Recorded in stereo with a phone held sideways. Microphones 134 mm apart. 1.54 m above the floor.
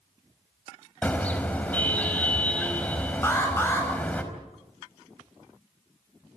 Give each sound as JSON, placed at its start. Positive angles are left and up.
{"t": 1.0, "sound": "a car horn", "side_deg": 10, "distance_m": 4.5}
{"t": 3.2, "sound": "an alarm", "side_deg": 15, "distance_m": 9.0}